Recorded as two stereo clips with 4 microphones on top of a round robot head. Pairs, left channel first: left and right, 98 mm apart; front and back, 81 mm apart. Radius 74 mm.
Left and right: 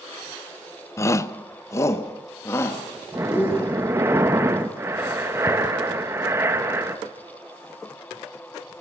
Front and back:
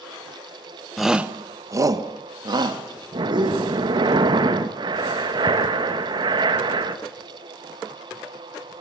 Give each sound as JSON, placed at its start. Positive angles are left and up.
{"t": 1.0, "sound": "a shout", "azimuth_deg": 90, "distance_m": 0.9}
{"t": 3.1, "sound": "breathing", "azimuth_deg": -155, "distance_m": 1.3}